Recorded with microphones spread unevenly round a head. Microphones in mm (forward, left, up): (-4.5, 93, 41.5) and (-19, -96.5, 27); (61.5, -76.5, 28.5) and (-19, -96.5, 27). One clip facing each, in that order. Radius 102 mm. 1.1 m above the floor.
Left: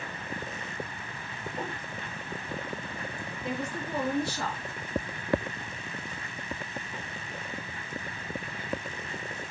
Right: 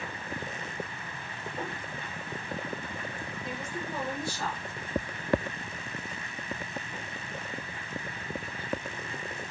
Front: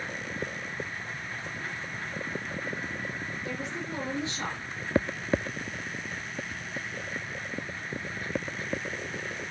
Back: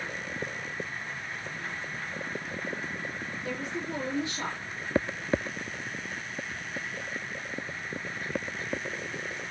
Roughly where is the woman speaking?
Behind left.